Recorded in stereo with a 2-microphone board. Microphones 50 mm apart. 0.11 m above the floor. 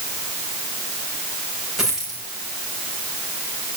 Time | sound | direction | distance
1.8 | a dropped coin | 10° right (ahead or behind) | 6 m